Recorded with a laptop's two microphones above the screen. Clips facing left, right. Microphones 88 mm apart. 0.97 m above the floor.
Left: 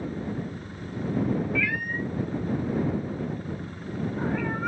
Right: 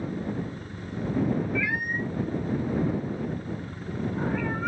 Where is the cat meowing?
20° right (ahead or behind); by 4.7 s 5° left (ahead or behind).